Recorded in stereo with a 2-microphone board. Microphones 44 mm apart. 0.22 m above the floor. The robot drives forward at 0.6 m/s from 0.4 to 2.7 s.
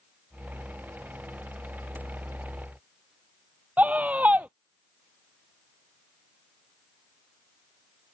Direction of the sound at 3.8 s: 35° right (ahead or behind).